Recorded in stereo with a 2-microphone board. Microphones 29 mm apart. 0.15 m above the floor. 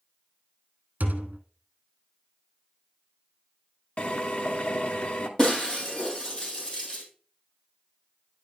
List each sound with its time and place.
1.0 s a thud: 70° right (ahead or behind), 1.3 m
4.0 s a drill: 50° left (ahead or behind), 1.2 m
5.4 s breaking glass: 25° left (ahead or behind), 3.5 m